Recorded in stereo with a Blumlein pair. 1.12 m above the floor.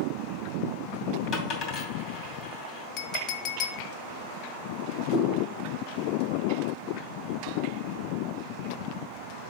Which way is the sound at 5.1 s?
35° left.